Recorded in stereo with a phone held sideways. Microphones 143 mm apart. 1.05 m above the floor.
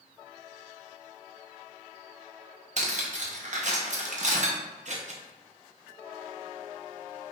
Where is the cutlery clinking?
55° right (ahead or behind), 0.6 m.